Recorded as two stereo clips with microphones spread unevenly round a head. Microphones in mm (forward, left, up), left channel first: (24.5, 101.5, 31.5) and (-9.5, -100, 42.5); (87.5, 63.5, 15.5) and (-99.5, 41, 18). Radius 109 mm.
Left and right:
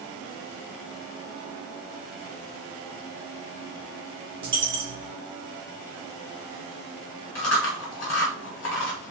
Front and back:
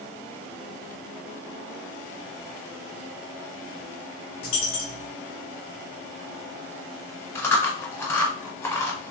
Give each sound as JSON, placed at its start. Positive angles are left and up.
{"t": 4.4, "sound": "a dropped coin", "azimuth_deg": -50, "distance_m": 0.8}
{"t": 7.3, "sound": "chewing", "azimuth_deg": 80, "distance_m": 1.0}